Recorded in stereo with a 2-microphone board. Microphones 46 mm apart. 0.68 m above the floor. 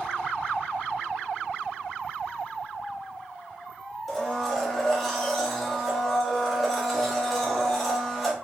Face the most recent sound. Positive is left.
turn(degrees=5)  # may be behind; listen again after turning